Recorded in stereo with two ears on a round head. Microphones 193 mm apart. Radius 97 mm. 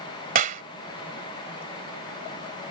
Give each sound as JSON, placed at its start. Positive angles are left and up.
{"t": 0.3, "sound": "a clap", "side_deg": -35}